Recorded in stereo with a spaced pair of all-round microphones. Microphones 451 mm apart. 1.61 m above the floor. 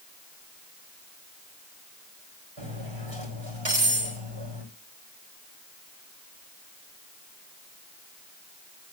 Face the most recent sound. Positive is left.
turn(degrees=-80)